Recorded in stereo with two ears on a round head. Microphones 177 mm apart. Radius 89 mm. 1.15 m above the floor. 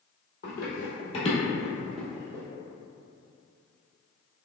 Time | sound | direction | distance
0.4 | running footsteps | 50° left (ahead or behind) | 1.7 m